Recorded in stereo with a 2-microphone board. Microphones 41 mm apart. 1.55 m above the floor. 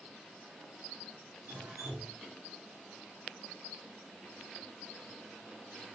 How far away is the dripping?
About 1.0 m.